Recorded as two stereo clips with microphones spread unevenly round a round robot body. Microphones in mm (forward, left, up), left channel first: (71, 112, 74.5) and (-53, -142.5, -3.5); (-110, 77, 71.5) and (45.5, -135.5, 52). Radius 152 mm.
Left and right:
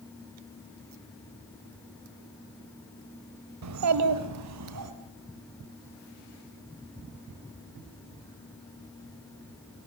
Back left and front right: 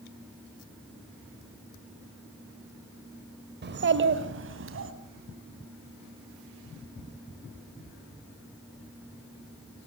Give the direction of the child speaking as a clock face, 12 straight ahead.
3 o'clock.